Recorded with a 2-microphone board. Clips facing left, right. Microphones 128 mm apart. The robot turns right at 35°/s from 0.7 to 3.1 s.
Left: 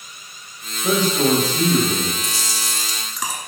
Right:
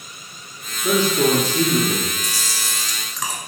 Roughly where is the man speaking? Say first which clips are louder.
Even; behind left.